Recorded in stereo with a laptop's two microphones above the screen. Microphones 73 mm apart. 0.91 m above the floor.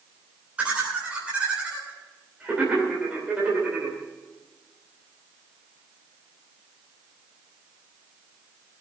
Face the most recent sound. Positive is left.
turn(degrees=-15)  # may be behind; listen again after turning